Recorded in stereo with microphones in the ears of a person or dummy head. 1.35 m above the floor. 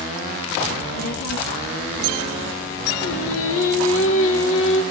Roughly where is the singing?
Left.